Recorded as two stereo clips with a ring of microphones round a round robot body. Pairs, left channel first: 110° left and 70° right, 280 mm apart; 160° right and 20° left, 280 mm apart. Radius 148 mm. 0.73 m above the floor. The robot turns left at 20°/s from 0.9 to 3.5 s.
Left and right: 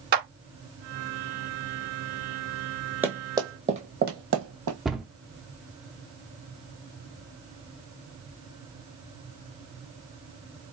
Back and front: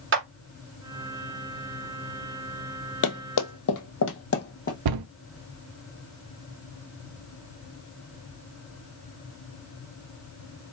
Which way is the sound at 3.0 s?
150° right.